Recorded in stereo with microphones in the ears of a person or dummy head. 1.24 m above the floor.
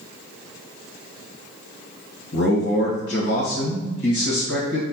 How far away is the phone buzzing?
I don't hear a phone buzzing.